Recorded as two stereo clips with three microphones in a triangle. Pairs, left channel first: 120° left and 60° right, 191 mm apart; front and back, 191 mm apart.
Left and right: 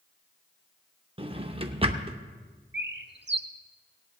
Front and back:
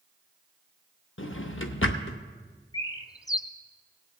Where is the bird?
70° right, 0.7 m.